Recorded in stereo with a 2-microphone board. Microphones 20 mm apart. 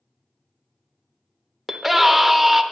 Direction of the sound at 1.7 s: 5° right (ahead or behind).